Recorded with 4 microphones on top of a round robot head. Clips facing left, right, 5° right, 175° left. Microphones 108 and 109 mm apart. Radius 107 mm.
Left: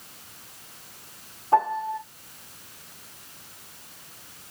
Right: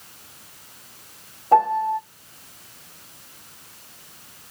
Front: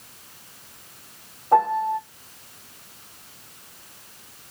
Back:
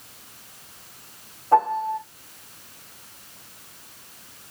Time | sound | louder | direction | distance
1.5 | a piano | right 5 dB, front 1 dB | 85° right | 2.5 m